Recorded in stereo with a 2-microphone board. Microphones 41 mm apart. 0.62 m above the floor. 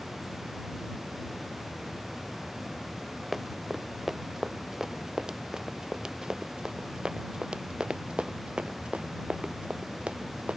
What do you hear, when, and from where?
3.3 s running footsteps: 5° right (ahead or behind); by 10.6 s 30° right (ahead or behind)